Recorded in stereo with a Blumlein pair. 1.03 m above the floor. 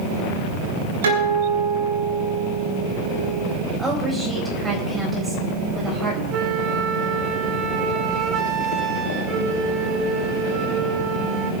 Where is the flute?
35° right, 1.5 m.